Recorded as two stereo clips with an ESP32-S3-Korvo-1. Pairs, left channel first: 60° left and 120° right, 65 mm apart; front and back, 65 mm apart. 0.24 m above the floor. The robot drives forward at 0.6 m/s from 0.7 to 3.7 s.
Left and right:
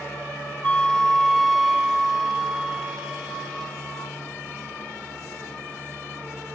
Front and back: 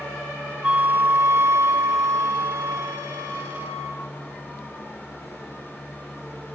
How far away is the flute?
About 0.7 m.